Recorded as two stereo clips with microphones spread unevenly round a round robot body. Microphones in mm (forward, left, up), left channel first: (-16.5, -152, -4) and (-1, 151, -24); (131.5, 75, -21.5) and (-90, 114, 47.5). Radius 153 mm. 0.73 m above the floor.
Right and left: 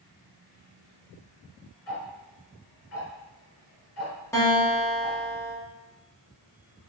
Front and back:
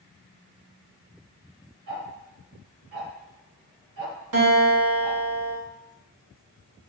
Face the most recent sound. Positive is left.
turn(degrees=-175)